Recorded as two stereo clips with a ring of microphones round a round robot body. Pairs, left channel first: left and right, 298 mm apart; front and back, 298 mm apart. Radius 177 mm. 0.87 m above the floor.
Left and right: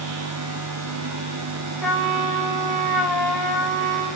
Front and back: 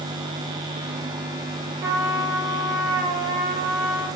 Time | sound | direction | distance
1.8 | a trumpet | 175° right | 5 m